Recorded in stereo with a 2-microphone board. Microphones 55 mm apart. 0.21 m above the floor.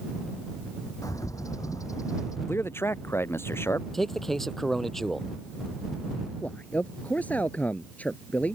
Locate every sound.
1.0 s a bird: 85° left
2.5 s a man speaking: 45° left (ahead or behind)
3.9 s a man speaking: 5° left (ahead or behind)
6.4 s a man speaking: 25° left (ahead or behind)